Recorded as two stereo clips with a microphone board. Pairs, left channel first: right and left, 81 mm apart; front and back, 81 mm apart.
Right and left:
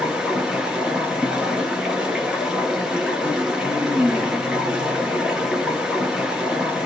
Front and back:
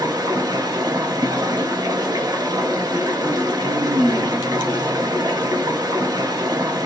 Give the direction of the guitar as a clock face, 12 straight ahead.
I don't hear a guitar.